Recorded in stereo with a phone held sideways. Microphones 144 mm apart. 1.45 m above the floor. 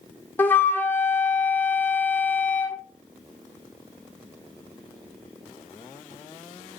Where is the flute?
10° left (ahead or behind), 0.5 m.